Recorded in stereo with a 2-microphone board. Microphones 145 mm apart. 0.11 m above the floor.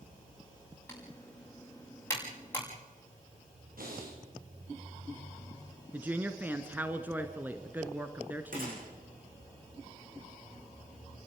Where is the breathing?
80° right, 7.5 m.